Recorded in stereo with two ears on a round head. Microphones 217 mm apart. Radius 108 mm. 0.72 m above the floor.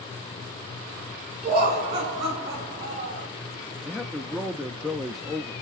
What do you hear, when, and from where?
1.4 s laughter: 35° right (ahead or behind), 7 m; by 3.3 s 25° right (ahead or behind), 5 m
3.9 s a man speaking: centre (ahead or behind), 0.7 m